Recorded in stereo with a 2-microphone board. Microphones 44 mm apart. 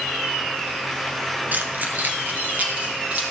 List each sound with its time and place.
1.5 s keys jangling: 40° right (ahead or behind), 1.1 m; by 3.2 s 35° right (ahead or behind), 3.5 m